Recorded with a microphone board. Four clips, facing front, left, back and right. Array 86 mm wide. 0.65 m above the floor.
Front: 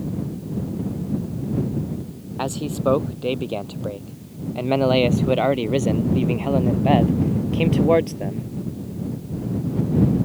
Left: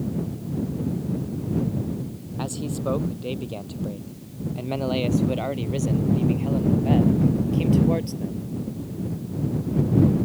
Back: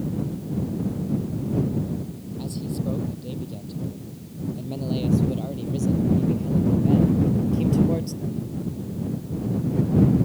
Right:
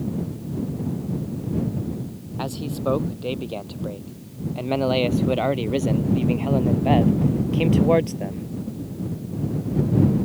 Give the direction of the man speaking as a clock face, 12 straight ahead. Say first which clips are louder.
Right 2 dB, front 7 dB; 12 o'clock.